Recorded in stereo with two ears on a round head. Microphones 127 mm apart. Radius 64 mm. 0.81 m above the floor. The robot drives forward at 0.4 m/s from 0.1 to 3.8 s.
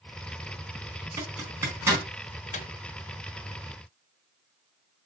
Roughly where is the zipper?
Right.